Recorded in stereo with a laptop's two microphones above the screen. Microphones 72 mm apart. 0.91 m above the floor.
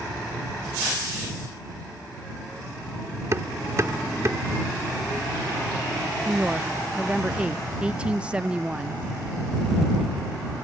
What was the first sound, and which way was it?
Hammering, 40° right (ahead or behind).